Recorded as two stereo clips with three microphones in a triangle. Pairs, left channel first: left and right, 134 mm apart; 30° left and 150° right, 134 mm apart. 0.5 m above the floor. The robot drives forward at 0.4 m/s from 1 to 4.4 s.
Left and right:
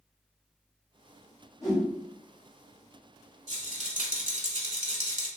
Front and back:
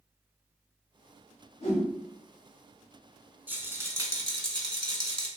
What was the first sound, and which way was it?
A whoosh, 40° left.